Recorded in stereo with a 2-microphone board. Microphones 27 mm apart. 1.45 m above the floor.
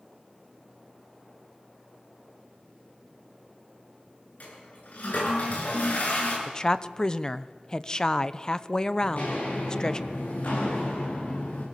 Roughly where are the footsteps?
Left.